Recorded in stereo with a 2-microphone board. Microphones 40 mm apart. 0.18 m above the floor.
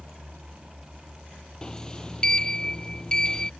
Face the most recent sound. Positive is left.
turn(degrees=15)  # may be behind; listen again after turning